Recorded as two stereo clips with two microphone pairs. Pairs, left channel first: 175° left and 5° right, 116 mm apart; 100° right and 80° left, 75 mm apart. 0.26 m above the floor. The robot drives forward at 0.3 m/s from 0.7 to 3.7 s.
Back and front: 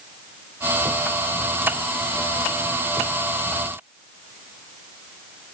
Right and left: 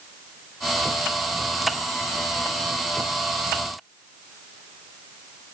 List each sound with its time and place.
Only background noise.